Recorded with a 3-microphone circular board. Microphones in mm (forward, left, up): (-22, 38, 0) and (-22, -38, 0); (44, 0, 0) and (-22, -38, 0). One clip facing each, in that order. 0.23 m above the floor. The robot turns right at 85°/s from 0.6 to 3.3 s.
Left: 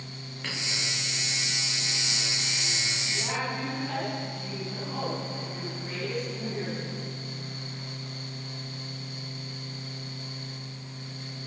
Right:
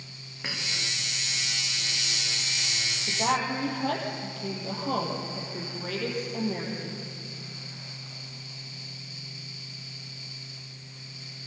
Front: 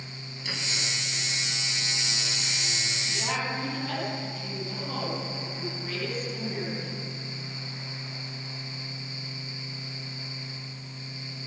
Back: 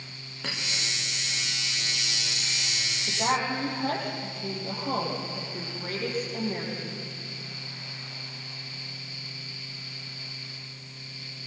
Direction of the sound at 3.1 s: 120° right.